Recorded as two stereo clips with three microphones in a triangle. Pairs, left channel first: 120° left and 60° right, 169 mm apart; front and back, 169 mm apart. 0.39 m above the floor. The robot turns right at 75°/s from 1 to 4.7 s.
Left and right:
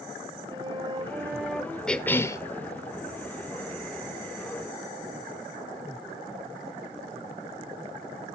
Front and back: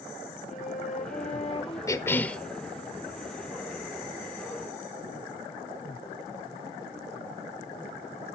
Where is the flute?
5° right, 2.0 m; by 1.8 s 50° left, 2.0 m.